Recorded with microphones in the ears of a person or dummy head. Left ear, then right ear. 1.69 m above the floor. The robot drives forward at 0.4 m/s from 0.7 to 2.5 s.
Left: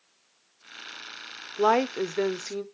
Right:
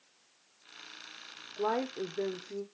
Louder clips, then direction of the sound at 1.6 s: Left 10 dB; 85° left.